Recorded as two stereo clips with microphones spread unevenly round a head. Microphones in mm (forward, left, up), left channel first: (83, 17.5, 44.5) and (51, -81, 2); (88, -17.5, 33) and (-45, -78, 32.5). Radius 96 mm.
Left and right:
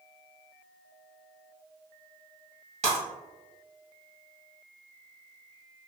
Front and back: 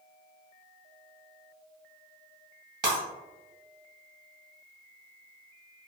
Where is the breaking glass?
110° right, 1.7 m.